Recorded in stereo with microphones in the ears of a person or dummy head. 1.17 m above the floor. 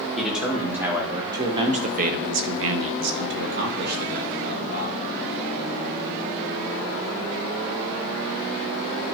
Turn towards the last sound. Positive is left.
turn(degrees=-40)  # may be behind; listen again after turning